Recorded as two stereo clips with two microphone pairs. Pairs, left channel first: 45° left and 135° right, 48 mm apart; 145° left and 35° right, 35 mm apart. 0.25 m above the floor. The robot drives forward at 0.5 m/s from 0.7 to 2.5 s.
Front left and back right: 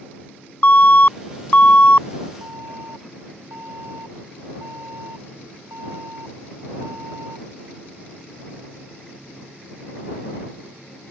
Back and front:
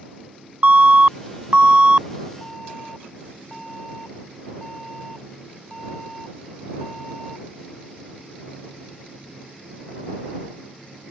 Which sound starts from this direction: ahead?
An alarm, at 0.6 s.